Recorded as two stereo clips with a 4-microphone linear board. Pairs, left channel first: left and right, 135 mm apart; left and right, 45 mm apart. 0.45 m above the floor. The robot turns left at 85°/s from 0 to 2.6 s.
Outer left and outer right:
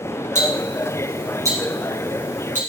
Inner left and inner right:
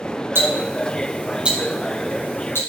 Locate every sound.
0.3 s ticking: 60° right (ahead or behind), 4 m; by 2.6 s 70° left (ahead or behind), 4 m